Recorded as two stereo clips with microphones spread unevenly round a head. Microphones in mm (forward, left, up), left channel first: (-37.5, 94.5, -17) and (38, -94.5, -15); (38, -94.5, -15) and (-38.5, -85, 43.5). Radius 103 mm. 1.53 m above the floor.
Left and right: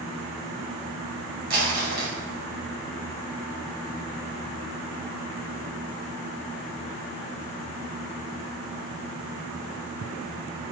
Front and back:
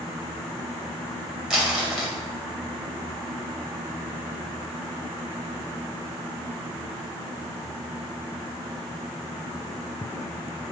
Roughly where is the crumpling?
Right.